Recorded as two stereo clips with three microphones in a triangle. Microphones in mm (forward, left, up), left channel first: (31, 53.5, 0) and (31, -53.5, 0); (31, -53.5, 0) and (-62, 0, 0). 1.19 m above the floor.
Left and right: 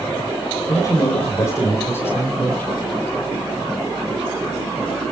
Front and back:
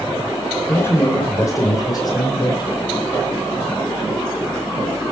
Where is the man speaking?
40° left, 4 m; by 2.9 s 15° left, 5 m.